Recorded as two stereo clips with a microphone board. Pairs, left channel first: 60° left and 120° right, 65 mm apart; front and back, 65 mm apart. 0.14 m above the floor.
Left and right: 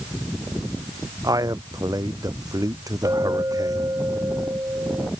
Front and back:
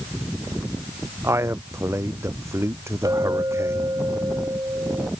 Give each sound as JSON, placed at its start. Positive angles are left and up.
{"t": 1.2, "sound": "a man speaking", "azimuth_deg": -135}
{"t": 3.0, "sound": "a clink", "azimuth_deg": -155}